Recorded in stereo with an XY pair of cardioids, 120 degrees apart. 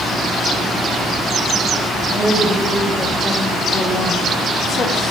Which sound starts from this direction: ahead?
A woman speaking, at 2.1 s.